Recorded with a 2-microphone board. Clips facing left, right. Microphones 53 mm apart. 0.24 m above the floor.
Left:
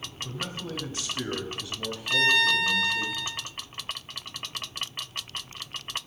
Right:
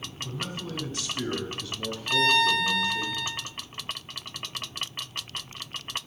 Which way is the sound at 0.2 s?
30° left (ahead or behind).